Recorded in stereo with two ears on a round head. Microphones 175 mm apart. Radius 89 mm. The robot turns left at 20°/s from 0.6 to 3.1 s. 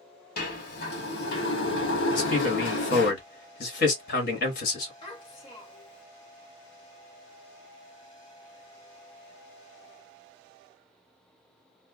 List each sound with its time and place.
0.4 s a sliding door: 120° left, 1.4 m; by 3.1 s 70° left, 1.4 m
2.1 s a man speaking: 45° left (ahead or behind), 1.5 m; by 4.9 s 50° left (ahead or behind), 1.5 m
5.0 s a child speaking: 25° left (ahead or behind), 1.5 m